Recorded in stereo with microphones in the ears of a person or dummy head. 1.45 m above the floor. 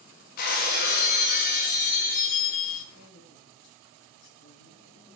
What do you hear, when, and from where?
0.4 s breaking glass: 50° left (ahead or behind), 1.4 m
2.9 s a man speaking: 70° left (ahead or behind), 1.8 m